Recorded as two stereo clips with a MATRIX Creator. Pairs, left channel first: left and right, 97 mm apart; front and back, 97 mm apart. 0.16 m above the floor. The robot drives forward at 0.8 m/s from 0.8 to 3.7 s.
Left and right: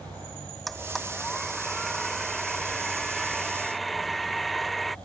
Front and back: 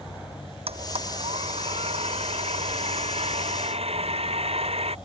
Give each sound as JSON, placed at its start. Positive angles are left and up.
{"t": 0.7, "sound": "a blender", "azimuth_deg": 180}